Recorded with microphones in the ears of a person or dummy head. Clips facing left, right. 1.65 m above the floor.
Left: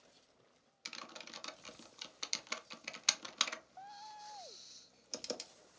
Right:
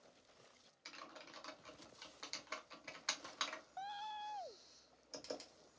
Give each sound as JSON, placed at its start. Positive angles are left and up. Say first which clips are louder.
{"t": 0.8, "sound": "typing on a keyboard", "louder": "left 3 dB", "side_deg": 40, "distance_m": 0.5}